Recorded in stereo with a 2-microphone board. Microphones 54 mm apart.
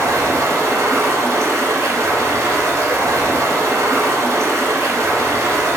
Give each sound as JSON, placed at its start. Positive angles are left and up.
{"t": 0.0, "sound": "running water", "side_deg": -65, "distance_m": 0.9}